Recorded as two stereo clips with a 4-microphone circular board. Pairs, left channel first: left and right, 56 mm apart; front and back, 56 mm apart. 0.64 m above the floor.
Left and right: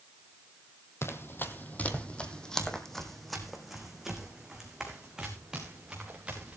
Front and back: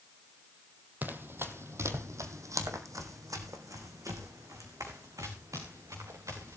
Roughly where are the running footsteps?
Behind left.